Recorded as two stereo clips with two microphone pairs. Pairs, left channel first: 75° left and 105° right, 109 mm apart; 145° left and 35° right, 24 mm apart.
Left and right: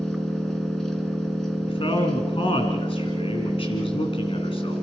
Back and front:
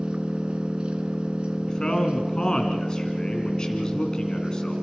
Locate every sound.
0.0 s an engine running: 10° right, 2.5 m
1.7 s a man speaking: 95° left, 2.5 m